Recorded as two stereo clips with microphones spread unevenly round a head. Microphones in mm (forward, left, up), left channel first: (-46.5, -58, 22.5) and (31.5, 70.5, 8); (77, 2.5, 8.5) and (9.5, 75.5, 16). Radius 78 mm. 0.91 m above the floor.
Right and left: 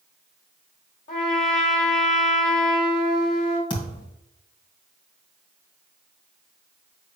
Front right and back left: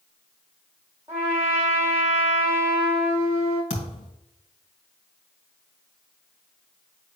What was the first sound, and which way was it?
A trumpet, 155° right.